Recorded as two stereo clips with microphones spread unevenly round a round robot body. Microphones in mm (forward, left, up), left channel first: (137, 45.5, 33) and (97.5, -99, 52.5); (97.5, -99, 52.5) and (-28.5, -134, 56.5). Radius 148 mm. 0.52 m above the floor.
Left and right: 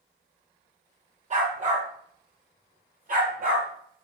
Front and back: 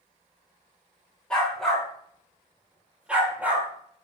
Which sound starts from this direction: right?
A dog barking, at 1.3 s.